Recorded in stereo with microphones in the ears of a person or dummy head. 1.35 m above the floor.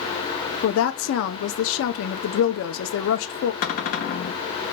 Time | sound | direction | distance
0.6 | a woman speaking | 80° left | 0.5 m
3.6 | a cupboard door | 40° left (ahead or behind) | 0.6 m